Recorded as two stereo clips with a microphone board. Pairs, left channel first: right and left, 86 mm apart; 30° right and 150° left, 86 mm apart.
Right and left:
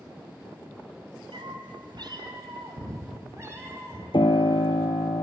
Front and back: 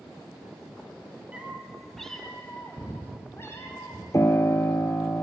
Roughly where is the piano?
Right.